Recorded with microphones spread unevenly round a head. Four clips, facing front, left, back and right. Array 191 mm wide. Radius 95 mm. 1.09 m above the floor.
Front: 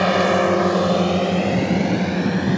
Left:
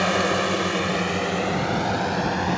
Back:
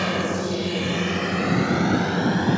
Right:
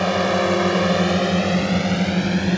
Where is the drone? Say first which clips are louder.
Right 3 dB, front 8 dB; 15° right; by 2.6 s 80° right.